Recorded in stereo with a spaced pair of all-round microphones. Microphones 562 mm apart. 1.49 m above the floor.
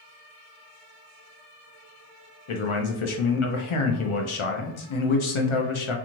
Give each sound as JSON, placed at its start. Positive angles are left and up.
{"t": 2.5, "sound": "a man speaking", "side_deg": 65, "distance_m": 0.5}